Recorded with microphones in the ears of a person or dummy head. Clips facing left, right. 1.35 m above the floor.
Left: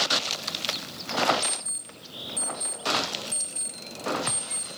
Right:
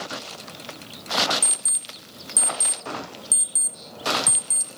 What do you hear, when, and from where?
1.4 s an alarm clock: 45° right (ahead or behind), 0.7 m